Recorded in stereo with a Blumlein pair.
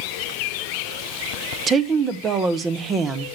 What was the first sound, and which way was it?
A woman speaking, 20° right.